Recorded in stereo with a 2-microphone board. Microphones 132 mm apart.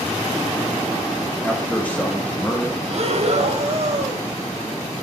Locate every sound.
1.4 s a man speaking: 5° left (ahead or behind), 1.3 m; by 2.8 s 15° left (ahead or behind), 2 m
2.9 s breathing: 55° right (ahead or behind), 1.2 m